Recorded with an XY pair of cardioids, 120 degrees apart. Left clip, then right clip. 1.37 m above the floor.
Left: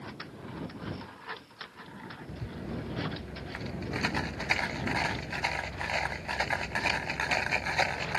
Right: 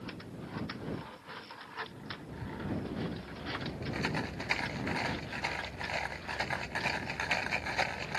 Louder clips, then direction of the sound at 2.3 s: Right 2 dB; 25° left.